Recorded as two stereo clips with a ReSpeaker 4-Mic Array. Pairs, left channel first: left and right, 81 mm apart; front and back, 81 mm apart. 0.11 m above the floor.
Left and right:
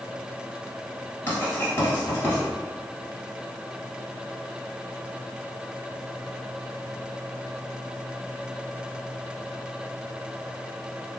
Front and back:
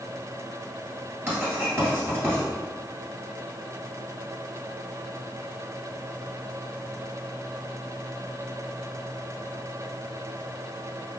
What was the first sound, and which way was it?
Writing, 130° left.